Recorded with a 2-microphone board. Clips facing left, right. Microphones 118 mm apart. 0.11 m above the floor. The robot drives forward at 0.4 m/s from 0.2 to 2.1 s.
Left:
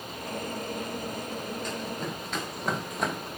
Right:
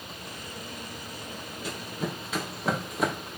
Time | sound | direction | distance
1.6 | running footsteps | 5° right (ahead or behind) | 4 m